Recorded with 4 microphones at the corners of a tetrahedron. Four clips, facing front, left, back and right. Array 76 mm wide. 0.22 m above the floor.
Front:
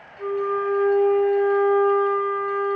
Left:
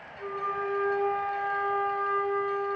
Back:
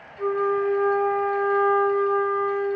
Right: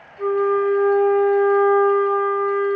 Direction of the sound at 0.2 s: 110° right.